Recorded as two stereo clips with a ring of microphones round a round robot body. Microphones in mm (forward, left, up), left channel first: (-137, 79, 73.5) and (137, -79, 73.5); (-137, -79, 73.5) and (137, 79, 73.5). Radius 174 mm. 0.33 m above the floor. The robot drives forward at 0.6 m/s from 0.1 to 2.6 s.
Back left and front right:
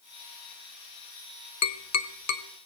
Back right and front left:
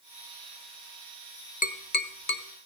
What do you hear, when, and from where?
1.6 s tapping: 155° left, 1.0 m; by 2.4 s 165° left, 1.4 m